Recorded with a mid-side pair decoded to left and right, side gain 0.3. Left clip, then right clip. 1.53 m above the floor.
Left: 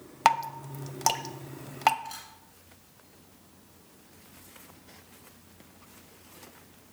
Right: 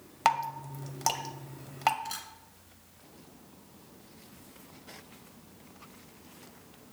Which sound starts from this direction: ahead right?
A camera shutter, at 2.0 s.